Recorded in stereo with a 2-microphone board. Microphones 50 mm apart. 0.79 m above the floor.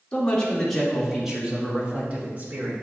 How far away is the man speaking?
About 2.5 m.